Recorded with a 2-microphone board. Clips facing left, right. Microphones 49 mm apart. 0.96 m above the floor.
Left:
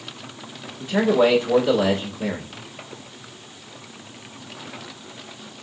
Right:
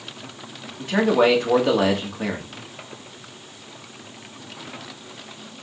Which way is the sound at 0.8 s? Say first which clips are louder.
Even; 65° right (ahead or behind).